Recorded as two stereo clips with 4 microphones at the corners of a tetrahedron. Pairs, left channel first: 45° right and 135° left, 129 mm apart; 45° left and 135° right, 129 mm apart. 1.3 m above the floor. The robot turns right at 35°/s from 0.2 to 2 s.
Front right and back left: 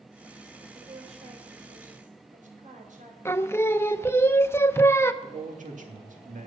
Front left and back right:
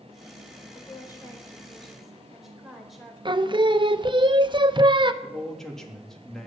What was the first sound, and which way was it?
A woman speaking, 90° left.